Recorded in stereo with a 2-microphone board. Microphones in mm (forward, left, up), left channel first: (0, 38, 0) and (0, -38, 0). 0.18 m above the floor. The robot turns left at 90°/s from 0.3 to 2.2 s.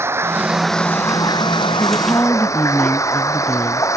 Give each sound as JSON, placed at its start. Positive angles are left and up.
{"t": 0.0, "sound": "running water", "azimuth_deg": -150}
{"t": 1.8, "sound": "a woman speaking", "azimuth_deg": 80}